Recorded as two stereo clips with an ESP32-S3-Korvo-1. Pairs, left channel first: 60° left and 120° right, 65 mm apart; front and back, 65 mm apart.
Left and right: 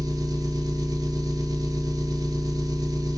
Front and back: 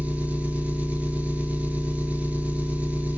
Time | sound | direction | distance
0.0 | an engine running | 110° right | 0.8 m